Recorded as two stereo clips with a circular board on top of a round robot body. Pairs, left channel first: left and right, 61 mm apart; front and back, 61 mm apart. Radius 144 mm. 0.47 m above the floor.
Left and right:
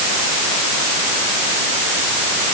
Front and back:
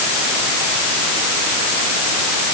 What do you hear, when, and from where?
Only background noise.